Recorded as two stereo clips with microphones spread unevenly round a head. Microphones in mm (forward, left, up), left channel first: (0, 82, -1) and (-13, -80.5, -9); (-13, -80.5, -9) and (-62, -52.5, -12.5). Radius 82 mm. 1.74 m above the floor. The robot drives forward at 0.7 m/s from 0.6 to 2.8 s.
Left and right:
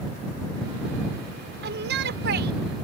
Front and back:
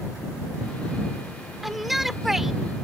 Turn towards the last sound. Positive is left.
turn(degrees=-125)